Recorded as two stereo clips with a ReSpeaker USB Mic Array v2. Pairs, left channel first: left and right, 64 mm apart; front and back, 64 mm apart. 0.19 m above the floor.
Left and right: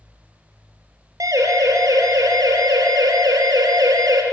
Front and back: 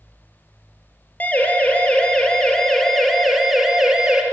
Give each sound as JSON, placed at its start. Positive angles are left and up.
{"t": 1.2, "sound": "a siren", "azimuth_deg": -60, "distance_m": 4.0}